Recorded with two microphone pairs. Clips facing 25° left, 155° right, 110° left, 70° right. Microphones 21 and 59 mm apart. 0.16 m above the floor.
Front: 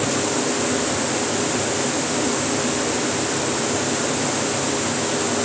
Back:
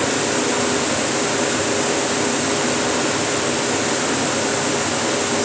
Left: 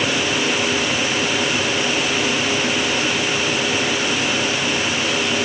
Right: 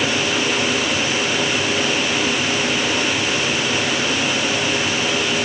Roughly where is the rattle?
No rattle in this recording.